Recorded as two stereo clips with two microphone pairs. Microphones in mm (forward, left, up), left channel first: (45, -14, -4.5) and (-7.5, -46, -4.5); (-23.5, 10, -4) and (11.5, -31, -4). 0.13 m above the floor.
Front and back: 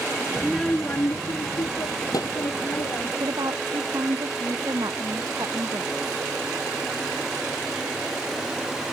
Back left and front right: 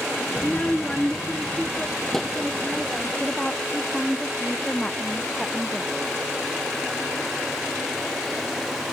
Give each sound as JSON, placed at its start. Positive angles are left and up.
{"t": 0.4, "sound": "a child speaking", "azimuth_deg": 160}
{"t": 3.2, "sound": "a woman speaking", "azimuth_deg": -155}